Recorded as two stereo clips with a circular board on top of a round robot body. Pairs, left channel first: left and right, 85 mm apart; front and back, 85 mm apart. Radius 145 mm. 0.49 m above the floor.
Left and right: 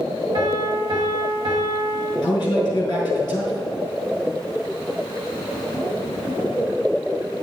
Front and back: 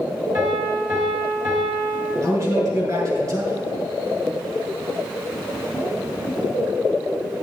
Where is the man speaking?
125° left, 5 m.